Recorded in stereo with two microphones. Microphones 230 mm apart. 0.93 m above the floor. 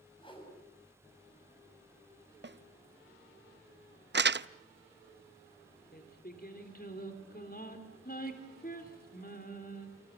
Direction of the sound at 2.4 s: 50° right (ahead or behind).